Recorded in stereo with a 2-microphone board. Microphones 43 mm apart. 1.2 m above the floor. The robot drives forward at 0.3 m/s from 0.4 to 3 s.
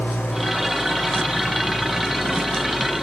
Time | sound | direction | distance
0.0 | an engine running | 45° left (ahead or behind) | 5 m